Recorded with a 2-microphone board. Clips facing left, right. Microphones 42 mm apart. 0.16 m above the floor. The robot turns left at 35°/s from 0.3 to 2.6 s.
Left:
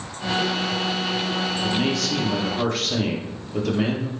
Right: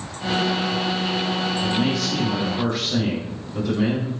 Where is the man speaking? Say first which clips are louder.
Even; 135° left, 3 m; by 4.1 s 100° left, 3 m.